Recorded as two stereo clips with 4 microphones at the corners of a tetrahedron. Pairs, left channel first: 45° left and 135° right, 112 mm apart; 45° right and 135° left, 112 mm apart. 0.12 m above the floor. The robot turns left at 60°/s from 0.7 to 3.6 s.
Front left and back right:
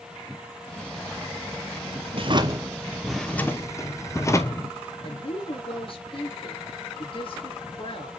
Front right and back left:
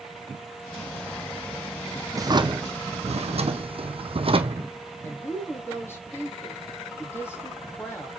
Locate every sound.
2.1 s a drawer: 165° right, 0.9 m; by 4.7 s 105° left, 0.9 m
5.0 s a woman speaking: 20° left, 3 m